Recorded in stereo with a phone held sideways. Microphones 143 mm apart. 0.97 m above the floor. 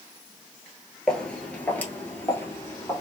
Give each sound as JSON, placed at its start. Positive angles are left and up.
{"t": 1.1, "sound": "footsteps", "side_deg": 5, "distance_m": 0.9}